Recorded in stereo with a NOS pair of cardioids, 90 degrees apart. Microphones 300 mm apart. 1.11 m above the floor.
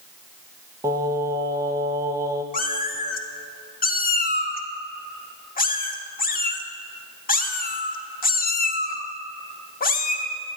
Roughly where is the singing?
Ahead.